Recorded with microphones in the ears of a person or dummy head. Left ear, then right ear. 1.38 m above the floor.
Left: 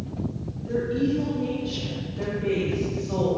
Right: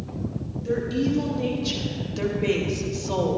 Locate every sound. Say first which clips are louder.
0.7 s a woman speaking: even; 45° right (ahead or behind), 2.5 m; by 3.4 s 80° right, 2 m